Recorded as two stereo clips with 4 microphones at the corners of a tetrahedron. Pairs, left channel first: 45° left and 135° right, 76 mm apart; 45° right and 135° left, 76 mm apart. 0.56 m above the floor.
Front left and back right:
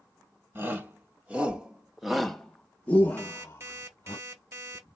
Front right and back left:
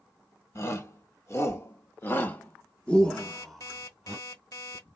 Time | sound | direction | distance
0.6 | a shout | 80° right | 1.5 m
3.2 | an alarm clock | 80° right | 1.1 m